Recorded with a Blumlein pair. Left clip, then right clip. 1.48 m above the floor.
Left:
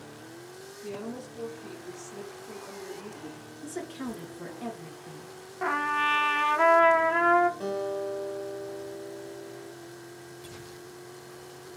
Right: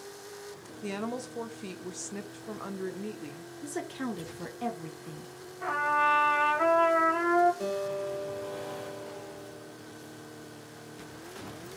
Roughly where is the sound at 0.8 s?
Ahead right.